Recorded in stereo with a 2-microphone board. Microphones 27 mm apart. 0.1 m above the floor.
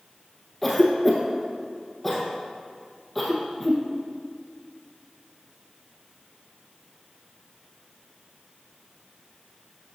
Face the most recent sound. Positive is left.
turn(degrees=5)  # may be behind; listen again after turning